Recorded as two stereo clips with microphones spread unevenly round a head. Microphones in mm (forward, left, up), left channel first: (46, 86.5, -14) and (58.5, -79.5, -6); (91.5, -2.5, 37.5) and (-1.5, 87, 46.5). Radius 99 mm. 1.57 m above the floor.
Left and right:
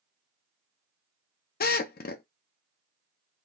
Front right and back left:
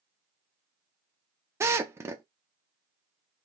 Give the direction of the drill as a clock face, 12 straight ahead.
10 o'clock.